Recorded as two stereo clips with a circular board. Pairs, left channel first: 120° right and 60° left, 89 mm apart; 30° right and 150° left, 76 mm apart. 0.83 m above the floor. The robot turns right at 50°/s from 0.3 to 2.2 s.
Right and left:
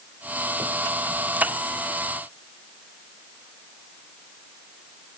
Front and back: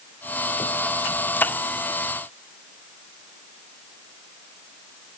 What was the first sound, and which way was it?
Only background noise.